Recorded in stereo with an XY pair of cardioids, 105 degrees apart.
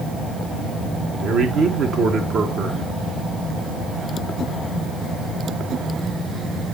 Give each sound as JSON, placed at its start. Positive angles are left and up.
{"t": 1.2, "sound": "a man speaking", "azimuth_deg": -60, "distance_m": 1.5}